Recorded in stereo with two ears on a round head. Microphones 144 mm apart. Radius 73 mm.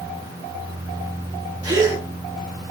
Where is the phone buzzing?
I don't hear a phone buzzing.